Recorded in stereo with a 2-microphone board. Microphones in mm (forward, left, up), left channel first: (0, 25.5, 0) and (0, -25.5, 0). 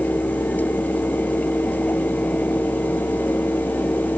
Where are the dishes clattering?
I don't hear dishes clattering.